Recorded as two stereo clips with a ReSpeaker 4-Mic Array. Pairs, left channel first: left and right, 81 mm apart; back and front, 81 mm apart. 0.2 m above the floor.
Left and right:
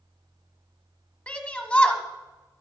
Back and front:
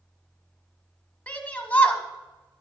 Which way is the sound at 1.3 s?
140° left.